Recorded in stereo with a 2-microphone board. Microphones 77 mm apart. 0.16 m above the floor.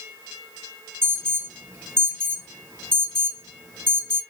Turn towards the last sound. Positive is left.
turn(degrees=-30)  # may be behind; listen again after turning